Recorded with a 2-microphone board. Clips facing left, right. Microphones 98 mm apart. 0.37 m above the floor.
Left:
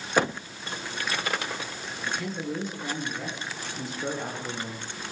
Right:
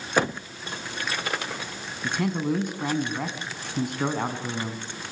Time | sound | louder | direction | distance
2.0 | a man speaking | right 6 dB | 60° right (ahead or behind) | 4 m